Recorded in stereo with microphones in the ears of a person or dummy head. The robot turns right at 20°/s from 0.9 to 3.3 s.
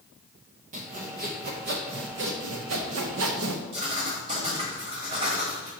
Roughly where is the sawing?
Behind right.